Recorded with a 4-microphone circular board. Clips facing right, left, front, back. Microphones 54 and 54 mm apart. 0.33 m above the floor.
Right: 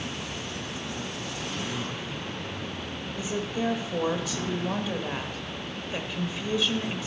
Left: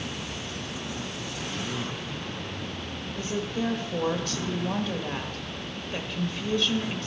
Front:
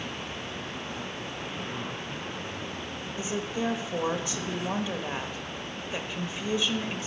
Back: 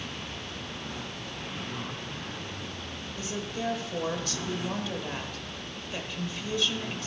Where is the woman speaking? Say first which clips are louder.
Even, front 3 dB; 30° right, 1.0 m.